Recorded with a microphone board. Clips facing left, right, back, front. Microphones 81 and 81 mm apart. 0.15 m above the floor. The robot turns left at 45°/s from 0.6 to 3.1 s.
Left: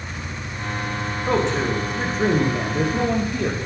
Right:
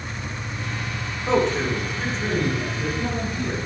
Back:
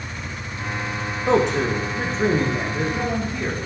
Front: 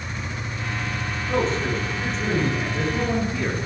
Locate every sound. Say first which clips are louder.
1.3 s a man speaking: right 1 dB, back 5 dB; 170° left, 9.5 m; by 3.6 s 85° left, 9.5 m